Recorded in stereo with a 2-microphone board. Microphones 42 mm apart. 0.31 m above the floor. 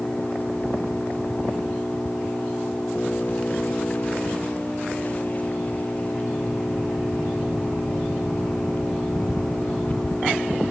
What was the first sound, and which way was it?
An engine running, 35° left (ahead or behind).